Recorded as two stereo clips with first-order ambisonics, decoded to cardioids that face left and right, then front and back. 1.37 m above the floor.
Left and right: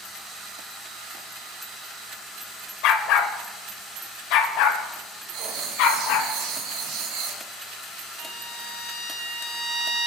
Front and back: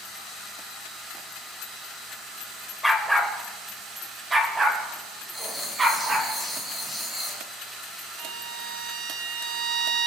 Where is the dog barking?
90° left, 1.7 m; by 6.3 s 110° left, 4.5 m.